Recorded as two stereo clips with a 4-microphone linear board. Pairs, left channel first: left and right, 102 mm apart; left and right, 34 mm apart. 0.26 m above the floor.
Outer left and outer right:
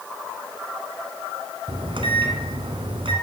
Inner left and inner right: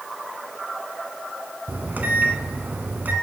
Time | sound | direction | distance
1.7 | a microwave | 60° right (ahead or behind) | 2.0 m